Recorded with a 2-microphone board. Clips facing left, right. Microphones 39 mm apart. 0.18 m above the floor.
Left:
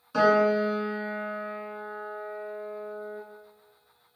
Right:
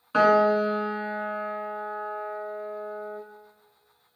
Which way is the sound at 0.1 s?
35° right (ahead or behind).